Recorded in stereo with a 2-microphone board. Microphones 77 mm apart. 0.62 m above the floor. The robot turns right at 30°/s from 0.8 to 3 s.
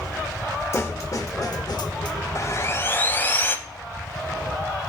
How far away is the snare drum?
About 0.6 m.